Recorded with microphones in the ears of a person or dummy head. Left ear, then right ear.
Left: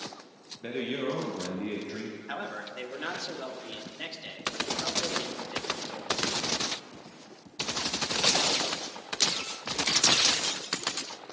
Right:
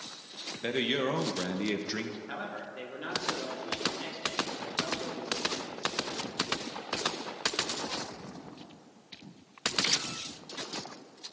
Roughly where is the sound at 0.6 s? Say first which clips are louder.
Right 3 dB; right.